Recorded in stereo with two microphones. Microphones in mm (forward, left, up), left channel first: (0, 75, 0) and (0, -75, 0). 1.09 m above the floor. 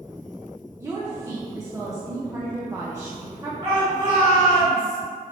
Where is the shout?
40° right (ahead or behind), 1.9 m.